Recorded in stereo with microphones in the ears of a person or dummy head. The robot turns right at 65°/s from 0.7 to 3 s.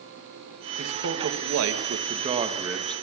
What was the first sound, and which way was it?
A man speaking, 130° right.